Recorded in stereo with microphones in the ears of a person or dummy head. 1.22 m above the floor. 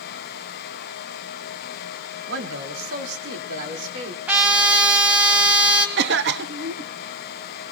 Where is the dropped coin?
I don't hear a dropped coin.